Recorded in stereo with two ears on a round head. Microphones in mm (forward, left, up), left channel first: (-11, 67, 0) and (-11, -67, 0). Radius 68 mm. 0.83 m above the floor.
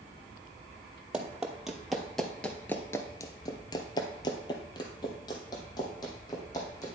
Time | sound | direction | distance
1.1 | running footsteps | 5° right (ahead or behind) | 1.5 m